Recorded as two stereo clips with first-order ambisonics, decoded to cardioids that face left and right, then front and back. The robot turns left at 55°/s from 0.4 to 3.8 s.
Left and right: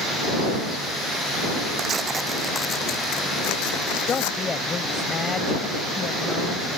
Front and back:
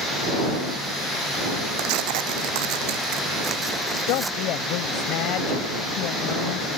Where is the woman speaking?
20° left.